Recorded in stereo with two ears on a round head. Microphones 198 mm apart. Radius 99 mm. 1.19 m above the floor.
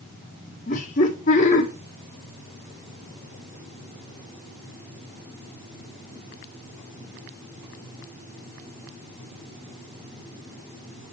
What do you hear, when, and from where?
0.7 s laughter: 35° left (ahead or behind), 1.2 m